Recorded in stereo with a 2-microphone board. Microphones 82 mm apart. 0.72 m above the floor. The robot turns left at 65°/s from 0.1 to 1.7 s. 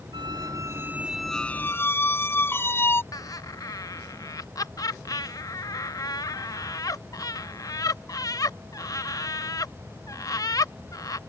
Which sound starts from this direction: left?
Laughter, at 3.1 s.